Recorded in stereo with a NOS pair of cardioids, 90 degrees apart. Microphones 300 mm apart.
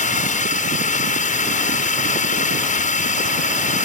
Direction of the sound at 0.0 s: 25° left.